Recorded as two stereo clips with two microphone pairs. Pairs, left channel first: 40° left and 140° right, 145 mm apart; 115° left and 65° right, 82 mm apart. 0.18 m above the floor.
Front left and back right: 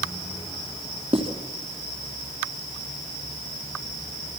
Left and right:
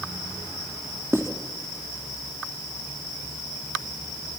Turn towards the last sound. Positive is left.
turn(degrees=-110)